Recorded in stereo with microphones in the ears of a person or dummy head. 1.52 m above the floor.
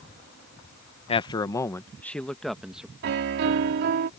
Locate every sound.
1.1 s a man speaking: 30° left (ahead or behind); by 2.9 s 5° right (ahead or behind)
3.0 s a piano: 60° right (ahead or behind)